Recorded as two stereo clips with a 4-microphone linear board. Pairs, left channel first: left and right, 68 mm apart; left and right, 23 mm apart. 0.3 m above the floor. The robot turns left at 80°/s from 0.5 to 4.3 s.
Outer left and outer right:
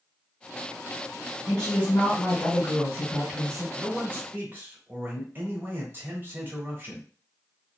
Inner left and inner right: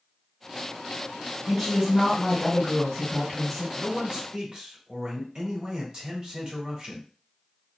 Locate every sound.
1.5 s a woman speaking: 170° left, 1.5 m; by 3.6 s 5° right, 1.5 m
3.8 s a man speaking: 40° right, 1.0 m; by 7.1 s 85° right, 1.0 m